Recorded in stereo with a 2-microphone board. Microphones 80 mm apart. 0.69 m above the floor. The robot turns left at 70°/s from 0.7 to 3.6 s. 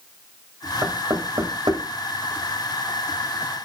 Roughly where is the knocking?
Right.